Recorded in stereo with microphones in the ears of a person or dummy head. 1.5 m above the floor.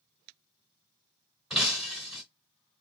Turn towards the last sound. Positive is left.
turn(degrees=-5)  # may be behind; listen again after turning